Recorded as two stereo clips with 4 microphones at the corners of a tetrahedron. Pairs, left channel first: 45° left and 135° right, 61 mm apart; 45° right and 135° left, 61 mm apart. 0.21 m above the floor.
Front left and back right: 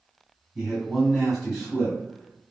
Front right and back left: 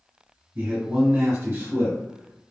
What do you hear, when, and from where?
0.6 s a man speaking: 145° left, 1.8 m